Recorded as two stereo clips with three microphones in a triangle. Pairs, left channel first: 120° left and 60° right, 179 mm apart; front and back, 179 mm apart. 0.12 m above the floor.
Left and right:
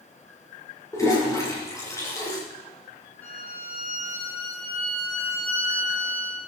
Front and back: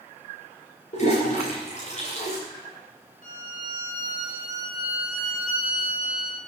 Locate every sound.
0.9 s a toilet flushing: 45° left, 9.5 m
3.2 s a violin: 35° left, 7 m